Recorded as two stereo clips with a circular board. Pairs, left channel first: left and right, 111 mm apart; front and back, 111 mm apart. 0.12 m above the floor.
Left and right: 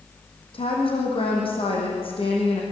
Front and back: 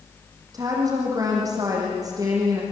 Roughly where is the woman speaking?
Behind left.